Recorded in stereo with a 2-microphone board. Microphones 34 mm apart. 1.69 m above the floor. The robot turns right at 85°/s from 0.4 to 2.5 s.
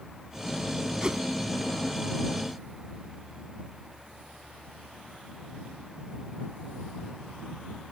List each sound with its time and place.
1.0 s a whoosh: 20° right (ahead or behind); by 1.2 s 35° right (ahead or behind)